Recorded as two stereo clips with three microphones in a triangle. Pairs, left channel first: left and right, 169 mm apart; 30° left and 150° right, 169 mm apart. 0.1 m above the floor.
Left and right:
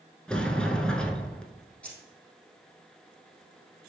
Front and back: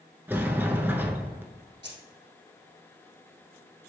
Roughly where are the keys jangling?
Behind.